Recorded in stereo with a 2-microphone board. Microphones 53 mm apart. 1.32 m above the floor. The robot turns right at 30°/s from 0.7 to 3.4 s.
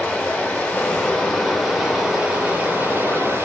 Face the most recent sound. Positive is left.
turn(degrees=-125)